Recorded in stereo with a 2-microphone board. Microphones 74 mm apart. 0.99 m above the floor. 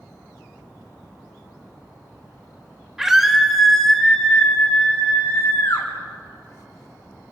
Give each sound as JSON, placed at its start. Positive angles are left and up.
{"t": 3.0, "sound": "a scream", "side_deg": -10, "distance_m": 3.0}